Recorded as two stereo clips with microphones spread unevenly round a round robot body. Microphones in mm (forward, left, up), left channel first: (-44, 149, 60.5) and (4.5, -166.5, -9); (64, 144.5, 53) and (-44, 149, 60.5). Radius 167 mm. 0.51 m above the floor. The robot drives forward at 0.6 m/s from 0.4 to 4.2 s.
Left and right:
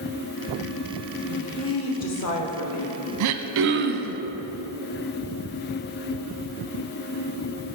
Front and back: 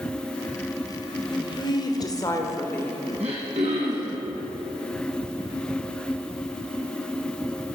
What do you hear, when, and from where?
1.3 s a woman speaking: 40° left, 2.0 m; by 3.0 s 70° left, 1.4 m
3.2 s throat clearing: 120° right, 0.6 m; by 4.2 s 150° right, 1.0 m